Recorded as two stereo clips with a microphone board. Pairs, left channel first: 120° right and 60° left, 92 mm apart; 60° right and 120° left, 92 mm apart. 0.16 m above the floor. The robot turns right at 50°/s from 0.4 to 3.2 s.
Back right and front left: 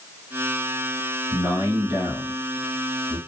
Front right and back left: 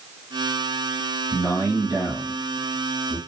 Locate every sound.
1.3 s a man speaking: 80° left, 1.4 m; by 3.2 s 175° left, 1.4 m